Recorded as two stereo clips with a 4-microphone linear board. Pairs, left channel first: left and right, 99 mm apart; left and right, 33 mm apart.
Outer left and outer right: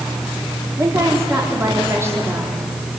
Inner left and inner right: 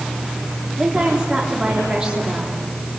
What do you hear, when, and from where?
0.8 s a woman speaking: 25° right (ahead or behind), 3 m